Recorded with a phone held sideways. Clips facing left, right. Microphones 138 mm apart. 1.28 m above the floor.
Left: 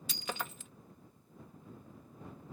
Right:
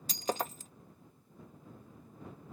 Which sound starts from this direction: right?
Breaking glass, at 0.1 s.